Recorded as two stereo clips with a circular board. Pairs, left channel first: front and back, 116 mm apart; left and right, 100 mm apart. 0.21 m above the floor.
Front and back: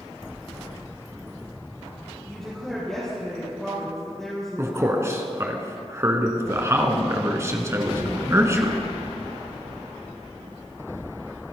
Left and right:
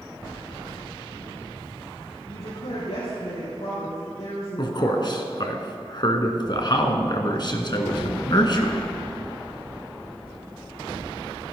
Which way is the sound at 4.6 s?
120° left.